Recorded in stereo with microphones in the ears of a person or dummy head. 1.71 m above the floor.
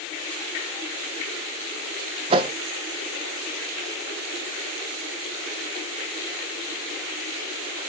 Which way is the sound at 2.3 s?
30° right (ahead or behind).